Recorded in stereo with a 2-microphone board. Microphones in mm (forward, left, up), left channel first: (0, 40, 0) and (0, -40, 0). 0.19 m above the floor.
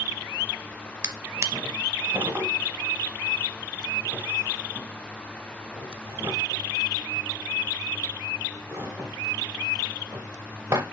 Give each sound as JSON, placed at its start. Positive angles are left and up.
{"t": 1.0, "sound": "a drawer", "side_deg": -30, "distance_m": 1.0}